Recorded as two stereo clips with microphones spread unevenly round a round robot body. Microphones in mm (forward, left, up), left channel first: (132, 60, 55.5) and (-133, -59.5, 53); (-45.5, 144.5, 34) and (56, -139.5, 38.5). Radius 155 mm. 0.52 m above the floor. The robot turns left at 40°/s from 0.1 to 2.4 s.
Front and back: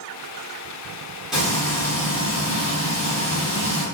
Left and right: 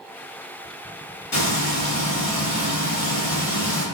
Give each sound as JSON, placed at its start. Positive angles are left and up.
{"t": 1.3, "sound": "frying", "azimuth_deg": 120, "distance_m": 1.5}